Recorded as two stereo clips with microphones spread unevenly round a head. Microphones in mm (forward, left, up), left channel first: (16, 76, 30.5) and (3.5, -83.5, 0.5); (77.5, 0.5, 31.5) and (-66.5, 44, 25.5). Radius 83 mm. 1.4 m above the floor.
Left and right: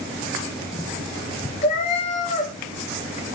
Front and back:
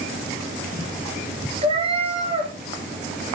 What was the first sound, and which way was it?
A cat meowing, 115° left.